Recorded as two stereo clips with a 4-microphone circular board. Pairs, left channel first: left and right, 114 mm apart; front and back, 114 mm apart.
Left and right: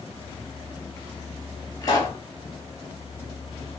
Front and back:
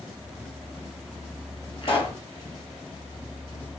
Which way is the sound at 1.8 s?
35° left.